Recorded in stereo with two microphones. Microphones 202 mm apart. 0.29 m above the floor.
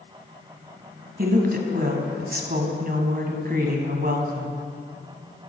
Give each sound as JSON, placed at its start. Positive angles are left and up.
{"t": 1.2, "sound": "a woman speaking", "side_deg": -50, "distance_m": 1.9}